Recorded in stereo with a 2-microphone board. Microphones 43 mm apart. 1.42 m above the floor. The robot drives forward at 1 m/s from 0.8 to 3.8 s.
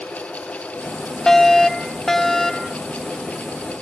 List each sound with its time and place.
1.3 s a fire alarm: 15° left (ahead or behind); by 2.8 s 10° left (ahead or behind)